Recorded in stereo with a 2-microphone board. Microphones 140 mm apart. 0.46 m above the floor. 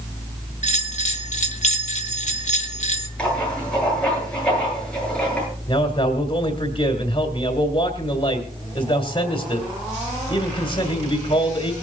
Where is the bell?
65° left (ahead or behind), 2 m.